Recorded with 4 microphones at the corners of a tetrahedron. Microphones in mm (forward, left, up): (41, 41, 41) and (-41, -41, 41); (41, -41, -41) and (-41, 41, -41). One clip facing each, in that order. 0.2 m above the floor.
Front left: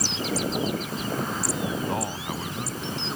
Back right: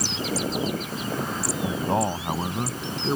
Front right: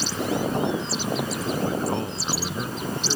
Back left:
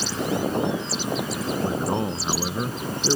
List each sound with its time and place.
1.6 s a man speaking: 170° right